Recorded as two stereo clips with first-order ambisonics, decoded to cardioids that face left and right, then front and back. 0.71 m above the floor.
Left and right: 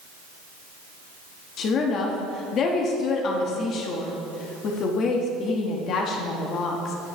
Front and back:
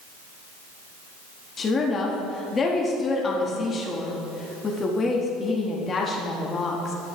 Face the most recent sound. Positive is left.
turn(degrees=60)